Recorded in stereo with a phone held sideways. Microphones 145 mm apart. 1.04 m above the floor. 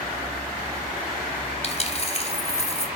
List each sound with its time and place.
1.6 s a dropped coin: 45° left (ahead or behind), 1.8 m